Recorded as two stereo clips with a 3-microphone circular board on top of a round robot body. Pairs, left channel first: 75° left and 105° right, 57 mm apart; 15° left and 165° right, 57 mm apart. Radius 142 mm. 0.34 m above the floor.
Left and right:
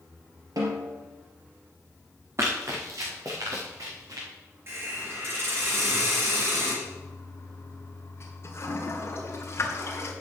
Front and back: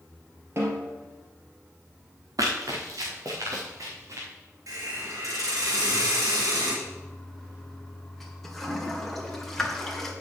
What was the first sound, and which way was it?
A snare drum, 120° right.